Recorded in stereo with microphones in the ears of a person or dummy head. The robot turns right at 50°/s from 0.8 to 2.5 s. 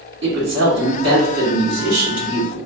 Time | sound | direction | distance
0.2 | a woman speaking | 115° right | 1.5 m